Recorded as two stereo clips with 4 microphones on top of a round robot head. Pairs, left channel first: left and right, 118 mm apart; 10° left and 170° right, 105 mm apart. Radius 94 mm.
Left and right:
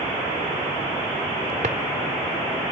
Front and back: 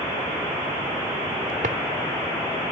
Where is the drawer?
135° right, 1.1 m.